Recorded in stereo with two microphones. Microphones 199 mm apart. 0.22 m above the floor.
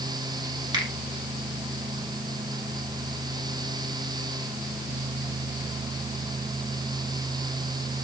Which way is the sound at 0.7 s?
20° right (ahead or behind).